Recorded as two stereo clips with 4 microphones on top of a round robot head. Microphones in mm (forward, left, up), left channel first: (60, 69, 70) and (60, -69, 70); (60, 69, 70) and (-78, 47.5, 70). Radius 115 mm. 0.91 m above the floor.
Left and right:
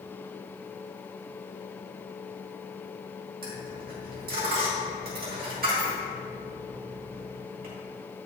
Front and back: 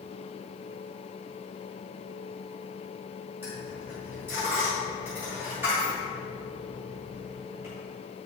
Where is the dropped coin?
95° right, 2.5 m.